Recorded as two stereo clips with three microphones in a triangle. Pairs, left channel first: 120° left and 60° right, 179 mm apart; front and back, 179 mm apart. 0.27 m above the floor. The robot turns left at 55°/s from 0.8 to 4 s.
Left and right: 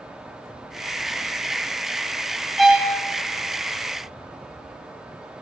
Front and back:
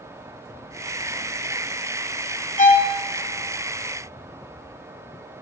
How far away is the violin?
About 1.1 m.